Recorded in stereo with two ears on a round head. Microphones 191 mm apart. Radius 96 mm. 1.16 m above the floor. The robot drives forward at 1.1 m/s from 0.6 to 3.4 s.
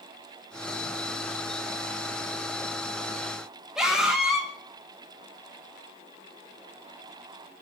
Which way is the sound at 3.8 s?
5° right (ahead or behind).